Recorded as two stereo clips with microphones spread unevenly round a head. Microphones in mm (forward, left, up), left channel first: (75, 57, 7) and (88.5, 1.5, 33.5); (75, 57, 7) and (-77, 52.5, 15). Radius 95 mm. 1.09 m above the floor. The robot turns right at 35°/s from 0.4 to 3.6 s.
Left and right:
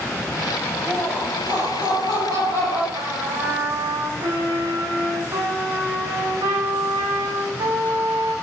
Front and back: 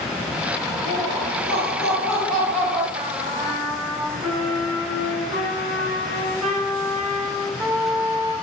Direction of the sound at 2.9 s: 105° right.